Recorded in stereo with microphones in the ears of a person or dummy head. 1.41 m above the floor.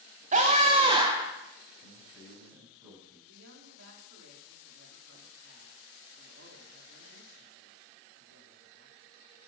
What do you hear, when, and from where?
0.3 s a scream: 40° right (ahead or behind), 1.9 m; by 1.3 s 10° right (ahead or behind), 1.1 m
1.8 s a man speaking: 10° right (ahead or behind), 8 m
3.3 s a man speaking: 70° right (ahead or behind), 4 m